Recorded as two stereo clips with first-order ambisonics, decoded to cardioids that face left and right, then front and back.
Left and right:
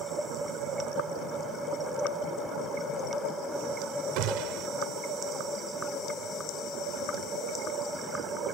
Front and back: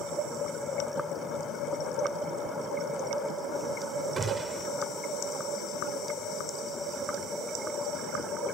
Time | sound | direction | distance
4.2 | a gunshot | 110° right | ?